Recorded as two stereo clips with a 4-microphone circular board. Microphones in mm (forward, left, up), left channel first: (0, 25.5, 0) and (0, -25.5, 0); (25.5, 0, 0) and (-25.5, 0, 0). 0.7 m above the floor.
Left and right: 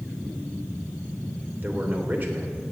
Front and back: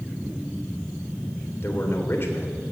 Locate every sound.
1.6 s a man speaking: 40° right, 3 m